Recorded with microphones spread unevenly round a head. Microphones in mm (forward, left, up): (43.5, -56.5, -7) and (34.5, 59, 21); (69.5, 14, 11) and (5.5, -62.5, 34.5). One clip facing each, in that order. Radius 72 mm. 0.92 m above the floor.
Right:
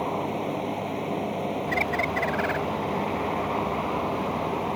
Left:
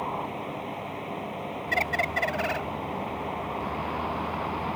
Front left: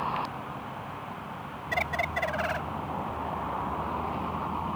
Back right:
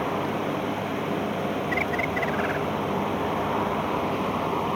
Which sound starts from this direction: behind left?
A bird, at 1.7 s.